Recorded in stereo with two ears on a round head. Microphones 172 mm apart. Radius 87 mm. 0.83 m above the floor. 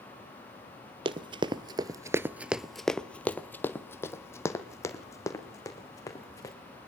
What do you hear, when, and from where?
1.1 s running footsteps: 25° right (ahead or behind), 1.2 m; by 6.5 s 15° left (ahead or behind), 4 m